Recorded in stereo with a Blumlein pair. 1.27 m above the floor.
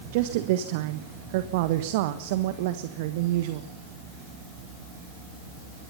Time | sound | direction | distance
0.1 | a woman speaking | 50° right | 1.4 m